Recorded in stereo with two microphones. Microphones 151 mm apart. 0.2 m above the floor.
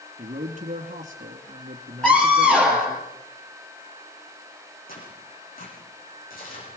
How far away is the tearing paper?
About 9 m.